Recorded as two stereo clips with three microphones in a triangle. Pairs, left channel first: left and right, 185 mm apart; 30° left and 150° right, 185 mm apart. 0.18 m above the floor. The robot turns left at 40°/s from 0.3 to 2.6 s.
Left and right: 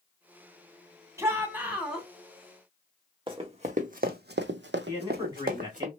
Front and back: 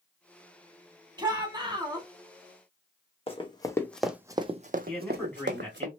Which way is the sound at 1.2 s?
140° right.